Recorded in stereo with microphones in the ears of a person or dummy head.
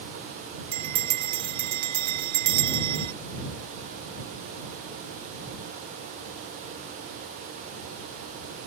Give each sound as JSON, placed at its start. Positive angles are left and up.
{"t": 0.7, "sound": "a bell", "side_deg": -30}